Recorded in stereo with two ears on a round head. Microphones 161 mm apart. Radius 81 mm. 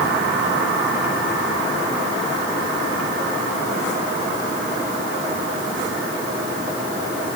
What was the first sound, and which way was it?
Only background noise.